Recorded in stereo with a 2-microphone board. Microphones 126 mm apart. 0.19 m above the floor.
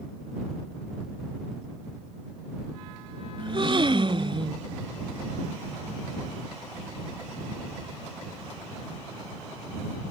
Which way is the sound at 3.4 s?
40° right (ahead or behind).